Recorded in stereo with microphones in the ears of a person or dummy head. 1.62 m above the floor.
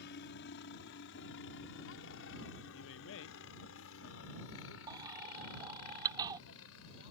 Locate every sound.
0.0 s a helicopter: 60° left (ahead or behind); by 7.1 s 80° left
2.7 s a man speaking: 75° left (ahead or behind)
4.9 s a baby crying: 20° right (ahead or behind)